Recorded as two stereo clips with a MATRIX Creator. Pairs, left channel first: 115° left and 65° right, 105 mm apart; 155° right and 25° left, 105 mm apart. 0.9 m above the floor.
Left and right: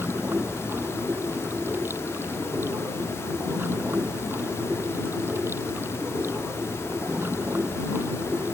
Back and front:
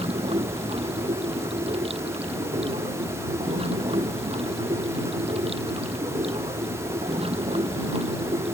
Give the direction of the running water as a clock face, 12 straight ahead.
12 o'clock.